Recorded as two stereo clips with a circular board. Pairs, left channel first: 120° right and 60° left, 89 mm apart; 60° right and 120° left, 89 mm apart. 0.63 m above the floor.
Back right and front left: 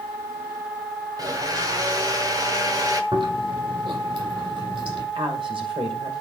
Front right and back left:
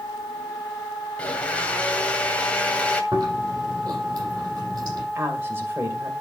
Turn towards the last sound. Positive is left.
turn(degrees=60)